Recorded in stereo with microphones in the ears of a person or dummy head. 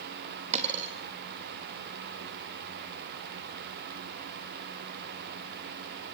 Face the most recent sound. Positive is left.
turn(degrees=-35)  # may be behind; listen again after turning